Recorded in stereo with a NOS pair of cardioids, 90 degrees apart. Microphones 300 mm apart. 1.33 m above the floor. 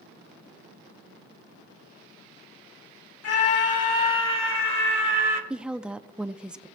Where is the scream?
55° left, 2.5 m; by 5.4 s 40° left, 3.5 m.